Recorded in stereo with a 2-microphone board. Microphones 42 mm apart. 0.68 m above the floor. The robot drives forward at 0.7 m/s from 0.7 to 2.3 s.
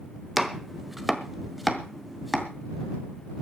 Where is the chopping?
5° right (ahead or behind), 1.2 m; by 2.5 s centre (ahead or behind), 2.5 m.